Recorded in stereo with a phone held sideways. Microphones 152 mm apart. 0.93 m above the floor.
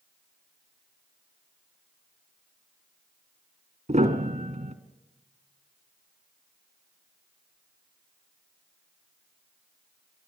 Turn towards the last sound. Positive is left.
turn(degrees=-50)  # may be behind; listen again after turning